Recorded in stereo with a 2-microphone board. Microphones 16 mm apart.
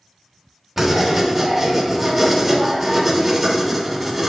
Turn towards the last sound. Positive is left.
turn(degrees=-15)  # may be behind; listen again after turning